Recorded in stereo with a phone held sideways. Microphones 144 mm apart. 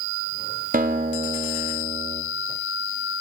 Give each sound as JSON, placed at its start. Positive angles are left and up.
{"t": 0.7, "sound": "a guitar", "side_deg": -80, "distance_m": 1.9}